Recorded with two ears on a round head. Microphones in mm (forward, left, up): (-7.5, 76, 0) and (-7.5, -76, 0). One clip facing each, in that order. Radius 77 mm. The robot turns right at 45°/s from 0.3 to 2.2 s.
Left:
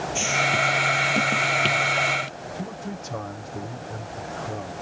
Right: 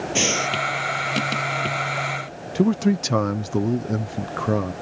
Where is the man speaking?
90° right.